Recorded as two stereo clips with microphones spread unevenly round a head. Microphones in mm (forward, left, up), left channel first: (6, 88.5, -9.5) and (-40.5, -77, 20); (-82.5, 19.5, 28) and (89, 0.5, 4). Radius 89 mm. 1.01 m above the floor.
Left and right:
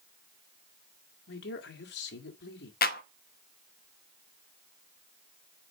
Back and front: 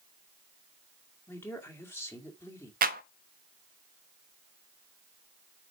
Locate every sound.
1.3 s a man speaking: 95° left, 2 m
2.8 s a clap: 35° left, 0.9 m